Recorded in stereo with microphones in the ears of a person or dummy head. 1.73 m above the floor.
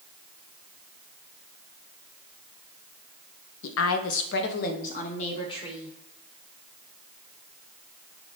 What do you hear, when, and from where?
3.6 s a woman speaking: 80° left, 0.6 m; by 6.0 s 25° left (ahead or behind), 1.3 m